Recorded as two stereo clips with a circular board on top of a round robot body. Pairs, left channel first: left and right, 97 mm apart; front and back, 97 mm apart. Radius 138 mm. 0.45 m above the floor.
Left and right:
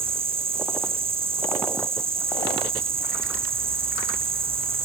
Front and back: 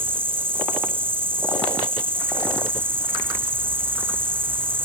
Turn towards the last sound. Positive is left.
turn(degrees=-110)